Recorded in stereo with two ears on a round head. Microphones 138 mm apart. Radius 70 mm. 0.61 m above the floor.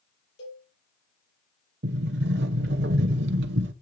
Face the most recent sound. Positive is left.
turn(degrees=-80)